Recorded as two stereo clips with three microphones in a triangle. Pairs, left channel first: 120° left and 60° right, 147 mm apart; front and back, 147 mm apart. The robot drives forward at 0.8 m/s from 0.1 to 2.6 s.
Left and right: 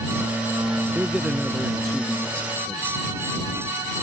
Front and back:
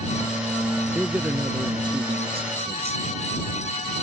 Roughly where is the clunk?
I don't hear a clunk.